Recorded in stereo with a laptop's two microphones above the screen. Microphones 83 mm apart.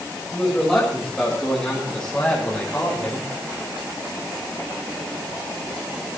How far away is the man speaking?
About 6.5 m.